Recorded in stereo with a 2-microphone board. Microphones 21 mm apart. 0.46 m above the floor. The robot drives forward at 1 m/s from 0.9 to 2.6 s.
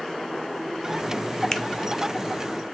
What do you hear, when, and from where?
1.5 s a finger snap: 25° left (ahead or behind), 0.8 m; by 1.6 s 30° left (ahead or behind), 0.7 m